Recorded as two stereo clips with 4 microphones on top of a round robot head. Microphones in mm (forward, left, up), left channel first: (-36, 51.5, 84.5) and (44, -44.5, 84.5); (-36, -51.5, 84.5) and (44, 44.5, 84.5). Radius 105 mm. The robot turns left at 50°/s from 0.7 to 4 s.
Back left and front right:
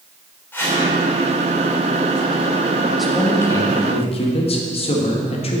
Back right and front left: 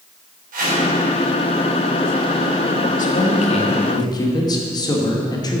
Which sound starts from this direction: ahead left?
A whoosh, at 0.5 s.